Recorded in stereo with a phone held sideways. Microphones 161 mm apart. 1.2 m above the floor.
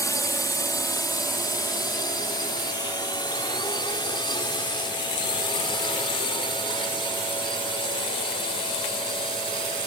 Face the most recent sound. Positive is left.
turn(degrees=30)  # may be behind; listen again after turning